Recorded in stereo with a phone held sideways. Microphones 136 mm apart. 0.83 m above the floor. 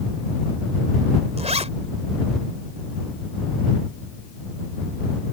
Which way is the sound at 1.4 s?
50° right (ahead or behind).